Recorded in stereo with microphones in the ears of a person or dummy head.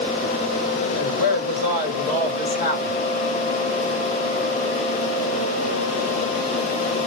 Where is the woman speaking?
50° left (ahead or behind), 1.4 m.